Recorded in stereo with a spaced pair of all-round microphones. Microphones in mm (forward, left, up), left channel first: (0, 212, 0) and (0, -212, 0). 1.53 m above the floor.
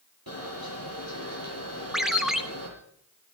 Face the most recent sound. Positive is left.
turn(degrees=0)  # may be behind; listen again after turning